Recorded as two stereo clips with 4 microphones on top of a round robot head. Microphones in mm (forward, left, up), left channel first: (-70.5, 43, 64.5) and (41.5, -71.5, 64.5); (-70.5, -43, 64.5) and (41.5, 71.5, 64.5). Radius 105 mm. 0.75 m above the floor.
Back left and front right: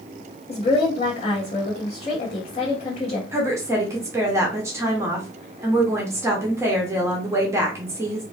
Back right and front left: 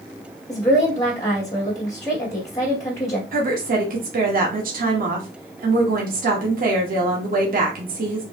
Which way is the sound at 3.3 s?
25° left.